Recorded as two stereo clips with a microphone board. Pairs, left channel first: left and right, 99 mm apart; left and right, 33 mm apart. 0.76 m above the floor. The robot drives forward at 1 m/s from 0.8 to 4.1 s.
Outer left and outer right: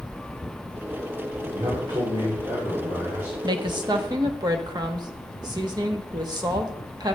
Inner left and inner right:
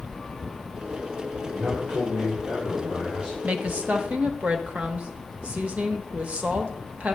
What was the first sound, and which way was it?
A man speaking, 65° right (ahead or behind).